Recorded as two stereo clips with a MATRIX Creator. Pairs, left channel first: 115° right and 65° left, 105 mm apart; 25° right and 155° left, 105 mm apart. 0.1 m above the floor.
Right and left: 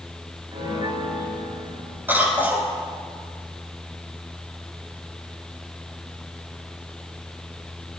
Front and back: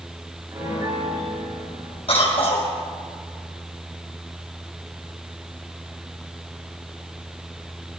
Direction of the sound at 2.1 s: 5° right.